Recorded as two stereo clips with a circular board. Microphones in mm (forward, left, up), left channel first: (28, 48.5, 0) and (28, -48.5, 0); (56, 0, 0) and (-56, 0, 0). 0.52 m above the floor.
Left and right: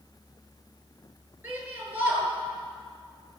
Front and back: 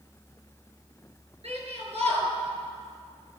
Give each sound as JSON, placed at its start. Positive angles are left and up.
{"t": 1.4, "sound": "a shout", "azimuth_deg": -160, "distance_m": 7.0}